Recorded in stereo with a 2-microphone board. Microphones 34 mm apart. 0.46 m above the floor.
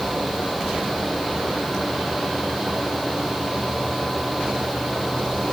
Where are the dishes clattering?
I don't hear dishes clattering.